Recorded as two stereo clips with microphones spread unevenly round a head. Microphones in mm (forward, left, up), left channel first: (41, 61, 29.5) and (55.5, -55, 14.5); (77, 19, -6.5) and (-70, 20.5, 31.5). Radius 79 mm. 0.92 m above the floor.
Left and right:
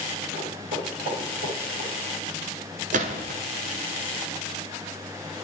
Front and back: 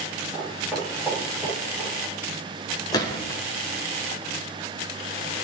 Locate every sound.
0.3 s footsteps: 85° right, 6 m
2.9 s a gunshot: 70° right, 1.5 m